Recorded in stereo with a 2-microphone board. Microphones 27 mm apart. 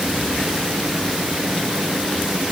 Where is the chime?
I don't hear a chime.